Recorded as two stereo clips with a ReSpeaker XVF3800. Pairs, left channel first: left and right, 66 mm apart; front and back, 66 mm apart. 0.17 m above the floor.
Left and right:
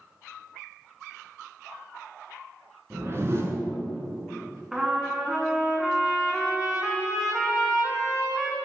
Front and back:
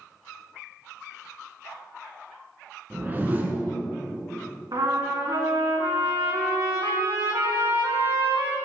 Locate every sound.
2.9 s a whoosh: 125° right, 1.3 m
4.7 s a trumpet: 170° right, 2.5 m